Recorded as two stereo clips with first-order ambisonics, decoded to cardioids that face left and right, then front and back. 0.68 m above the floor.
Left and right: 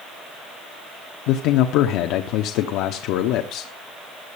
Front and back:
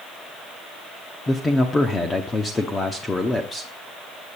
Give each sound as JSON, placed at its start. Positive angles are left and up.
{"t": 1.3, "sound": "a man speaking", "azimuth_deg": 75, "distance_m": 0.9}